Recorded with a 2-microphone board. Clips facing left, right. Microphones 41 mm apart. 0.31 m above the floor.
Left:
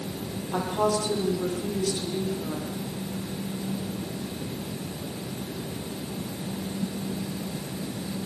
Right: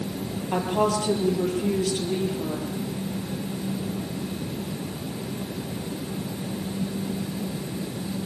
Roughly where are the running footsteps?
No running footsteps in this recording.